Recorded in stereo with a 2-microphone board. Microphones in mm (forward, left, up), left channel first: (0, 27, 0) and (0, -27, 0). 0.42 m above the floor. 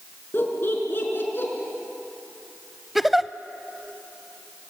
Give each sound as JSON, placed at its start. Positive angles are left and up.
{"t": 0.3, "sound": "laughter", "side_deg": 40, "distance_m": 5.5}
{"t": 3.0, "sound": "a giggle", "side_deg": 0, "distance_m": 0.7}